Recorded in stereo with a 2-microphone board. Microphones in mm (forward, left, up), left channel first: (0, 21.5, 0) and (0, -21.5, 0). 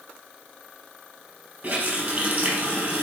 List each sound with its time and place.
1.6 s a running tap: 50° right (ahead or behind), 3.5 m